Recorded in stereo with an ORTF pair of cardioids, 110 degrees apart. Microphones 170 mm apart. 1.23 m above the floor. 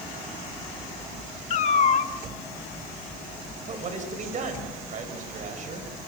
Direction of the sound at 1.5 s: 45° left.